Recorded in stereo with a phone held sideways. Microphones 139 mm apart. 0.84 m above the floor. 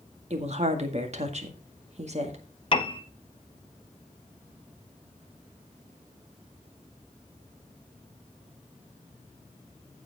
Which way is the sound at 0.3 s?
50° right (ahead or behind).